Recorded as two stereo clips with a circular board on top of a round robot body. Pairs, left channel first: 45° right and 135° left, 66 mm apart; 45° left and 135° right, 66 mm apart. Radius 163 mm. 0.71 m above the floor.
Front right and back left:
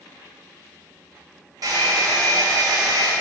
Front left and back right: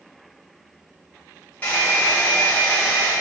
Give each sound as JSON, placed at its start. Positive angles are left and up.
{"t": 1.6, "sound": "a hair dryer", "azimuth_deg": 110, "distance_m": 4.5}